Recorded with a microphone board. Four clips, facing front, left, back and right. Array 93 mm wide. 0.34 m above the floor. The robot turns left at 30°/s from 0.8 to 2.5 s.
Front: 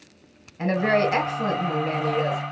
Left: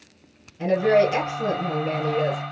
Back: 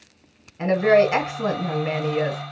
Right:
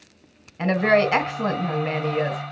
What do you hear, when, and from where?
0.6 s a woman speaking: 90° right, 1.2 m; by 2.4 s 140° right, 1.2 m